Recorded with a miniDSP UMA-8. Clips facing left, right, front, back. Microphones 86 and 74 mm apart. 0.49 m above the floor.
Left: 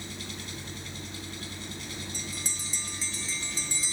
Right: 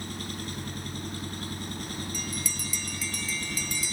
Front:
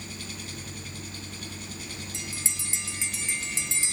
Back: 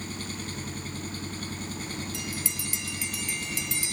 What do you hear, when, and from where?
0.0 s an engine running: 130° right, 4 m
2.1 s a bell: 50° left, 1.1 m